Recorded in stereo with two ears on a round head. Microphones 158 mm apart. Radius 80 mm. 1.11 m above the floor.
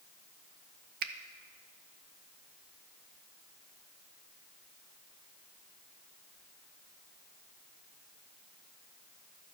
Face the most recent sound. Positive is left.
turn(degrees=-55)  # may be behind; listen again after turning